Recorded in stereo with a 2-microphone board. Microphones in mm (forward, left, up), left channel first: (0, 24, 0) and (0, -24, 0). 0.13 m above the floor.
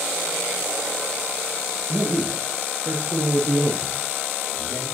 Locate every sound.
1.9 s a man speaking: 20° right (ahead or behind), 2.5 m; by 4.8 s 40° right (ahead or behind), 4 m